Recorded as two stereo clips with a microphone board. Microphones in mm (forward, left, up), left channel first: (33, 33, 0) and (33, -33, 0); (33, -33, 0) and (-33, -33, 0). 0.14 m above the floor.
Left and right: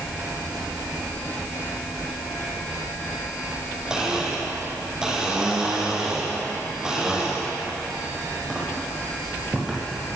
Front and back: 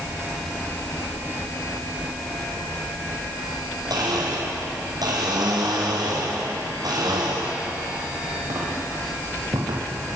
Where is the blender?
170° right, 4.5 m.